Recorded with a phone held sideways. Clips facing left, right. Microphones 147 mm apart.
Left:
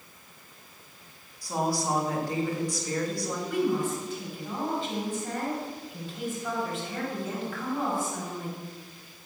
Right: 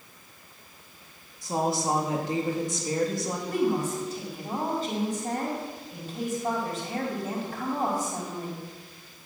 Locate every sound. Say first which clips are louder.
1.4 s a woman speaking: right 2 dB; 20° right (ahead or behind), 3 m
3.5 s a woman speaking: right 1 dB; 40° right (ahead or behind), 5 m